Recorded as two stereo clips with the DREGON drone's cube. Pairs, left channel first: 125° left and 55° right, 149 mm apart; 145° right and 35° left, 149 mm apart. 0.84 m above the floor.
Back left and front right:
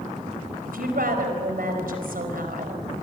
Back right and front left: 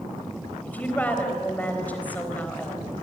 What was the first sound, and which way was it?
A woman speaking, 65° right.